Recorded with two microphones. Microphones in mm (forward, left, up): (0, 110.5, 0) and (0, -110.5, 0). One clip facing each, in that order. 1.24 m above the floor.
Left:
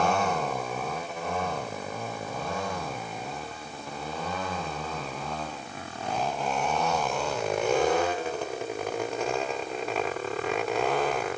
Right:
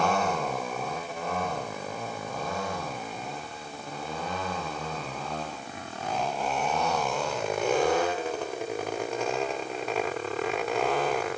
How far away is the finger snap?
I don't hear a finger snap.